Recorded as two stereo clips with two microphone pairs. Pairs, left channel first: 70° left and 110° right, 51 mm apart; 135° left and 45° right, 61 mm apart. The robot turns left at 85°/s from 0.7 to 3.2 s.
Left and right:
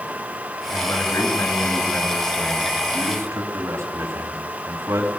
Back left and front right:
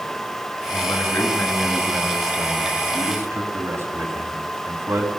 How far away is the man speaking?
About 3.5 m.